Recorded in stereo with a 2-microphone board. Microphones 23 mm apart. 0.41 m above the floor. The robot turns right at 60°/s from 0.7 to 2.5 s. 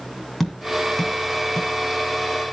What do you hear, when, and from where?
0.4 s tapping: centre (ahead or behind), 3 m; by 1.7 s 55° left (ahead or behind), 3 m